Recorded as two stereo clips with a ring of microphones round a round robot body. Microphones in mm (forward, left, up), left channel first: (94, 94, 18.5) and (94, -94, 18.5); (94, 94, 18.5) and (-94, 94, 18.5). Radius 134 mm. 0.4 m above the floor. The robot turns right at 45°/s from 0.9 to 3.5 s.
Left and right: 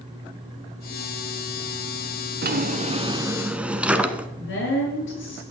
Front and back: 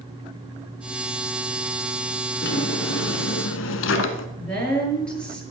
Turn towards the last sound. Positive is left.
turn(degrees=85)